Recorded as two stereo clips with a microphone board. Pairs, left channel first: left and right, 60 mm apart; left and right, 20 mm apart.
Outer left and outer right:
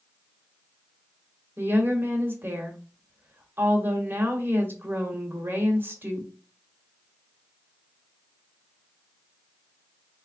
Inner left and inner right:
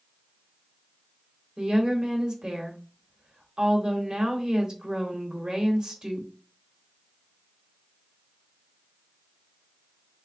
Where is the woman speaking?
40° right (ahead or behind), 1.1 m.